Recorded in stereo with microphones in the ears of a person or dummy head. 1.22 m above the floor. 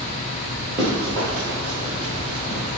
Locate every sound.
0.8 s running footsteps: 20° right (ahead or behind), 1.4 m; by 2.6 s 40° right (ahead or behind), 2 m